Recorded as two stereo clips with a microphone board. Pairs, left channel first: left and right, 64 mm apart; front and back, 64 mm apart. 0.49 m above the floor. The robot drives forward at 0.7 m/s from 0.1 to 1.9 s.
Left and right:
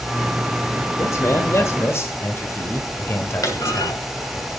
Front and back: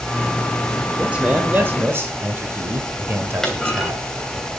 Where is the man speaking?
110° left, 1.5 m; by 4.4 s 135° left, 1.8 m.